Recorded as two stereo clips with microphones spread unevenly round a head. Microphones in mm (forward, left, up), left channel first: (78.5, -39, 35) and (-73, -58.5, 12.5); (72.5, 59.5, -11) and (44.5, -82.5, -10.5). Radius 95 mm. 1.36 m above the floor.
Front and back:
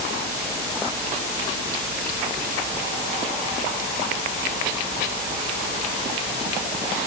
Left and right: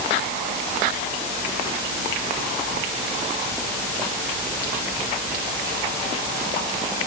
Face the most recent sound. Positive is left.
No sound to turn to.